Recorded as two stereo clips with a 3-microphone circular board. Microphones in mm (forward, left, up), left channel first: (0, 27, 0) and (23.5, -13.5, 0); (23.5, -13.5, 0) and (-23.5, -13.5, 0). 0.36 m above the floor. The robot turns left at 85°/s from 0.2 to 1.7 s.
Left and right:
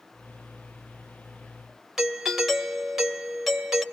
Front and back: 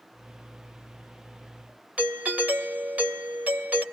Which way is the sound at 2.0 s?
140° right.